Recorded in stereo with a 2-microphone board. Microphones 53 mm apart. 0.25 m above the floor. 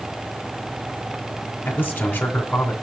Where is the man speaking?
30° left (ahead or behind), 2.0 m.